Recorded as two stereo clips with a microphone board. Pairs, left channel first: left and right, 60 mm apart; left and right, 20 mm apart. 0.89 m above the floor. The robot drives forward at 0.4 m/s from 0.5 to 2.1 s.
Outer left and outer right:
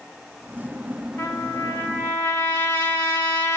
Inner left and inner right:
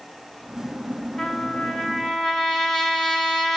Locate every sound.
1.2 s a trumpet: 50° left (ahead or behind), 0.7 m; by 3.6 s 40° left (ahead or behind), 0.8 m